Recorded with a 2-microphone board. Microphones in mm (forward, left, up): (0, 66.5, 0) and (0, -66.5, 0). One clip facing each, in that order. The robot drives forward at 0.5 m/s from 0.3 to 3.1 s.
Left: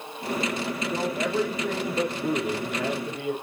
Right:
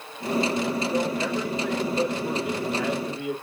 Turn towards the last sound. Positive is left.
turn(degrees=40)  # may be behind; listen again after turning